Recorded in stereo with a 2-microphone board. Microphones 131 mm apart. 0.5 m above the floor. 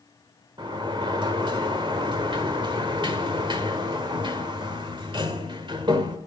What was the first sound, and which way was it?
A sliding door, 35° right (ahead or behind).